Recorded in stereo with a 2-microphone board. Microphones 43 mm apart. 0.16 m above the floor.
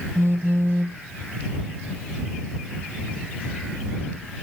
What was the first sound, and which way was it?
A phone buzzing, 75° right (ahead or behind).